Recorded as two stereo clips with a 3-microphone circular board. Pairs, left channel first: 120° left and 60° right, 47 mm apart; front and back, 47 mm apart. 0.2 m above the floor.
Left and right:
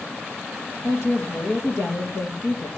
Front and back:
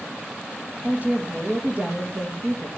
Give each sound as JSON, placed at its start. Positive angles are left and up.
{"t": 0.8, "sound": "a woman speaking", "azimuth_deg": 120, "distance_m": 4.5}